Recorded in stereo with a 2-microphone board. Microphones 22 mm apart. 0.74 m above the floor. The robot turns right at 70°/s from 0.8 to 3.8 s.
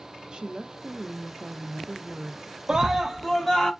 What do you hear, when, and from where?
0.3 s a woman speaking: 130° right, 0.6 m; by 2.5 s 10° right, 0.6 m
2.7 s a scream: 40° right, 0.7 m; by 3.7 s 30° left, 0.7 m